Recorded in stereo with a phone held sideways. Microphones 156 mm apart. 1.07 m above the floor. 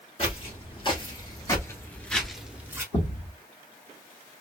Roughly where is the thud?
Left.